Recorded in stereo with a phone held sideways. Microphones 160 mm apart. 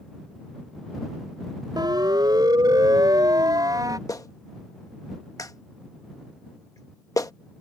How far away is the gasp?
No gasp in this recording.